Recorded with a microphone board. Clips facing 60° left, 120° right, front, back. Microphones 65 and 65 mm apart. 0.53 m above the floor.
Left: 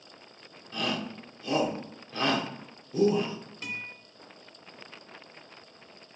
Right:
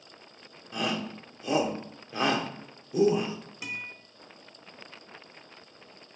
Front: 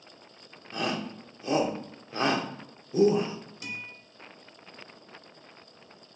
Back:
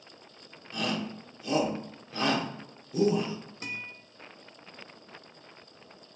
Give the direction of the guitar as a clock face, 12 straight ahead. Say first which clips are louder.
Even, back 1 dB; 6 o'clock.